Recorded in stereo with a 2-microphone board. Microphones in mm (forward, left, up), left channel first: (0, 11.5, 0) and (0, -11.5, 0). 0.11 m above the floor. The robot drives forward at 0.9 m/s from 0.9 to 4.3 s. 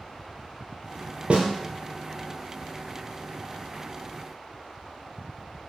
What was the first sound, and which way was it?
A snare drum, 65° right (ahead or behind).